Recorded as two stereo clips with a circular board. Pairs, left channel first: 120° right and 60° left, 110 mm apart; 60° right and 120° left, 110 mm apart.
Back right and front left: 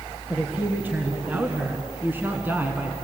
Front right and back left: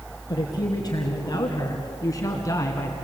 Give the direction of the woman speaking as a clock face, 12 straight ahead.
12 o'clock.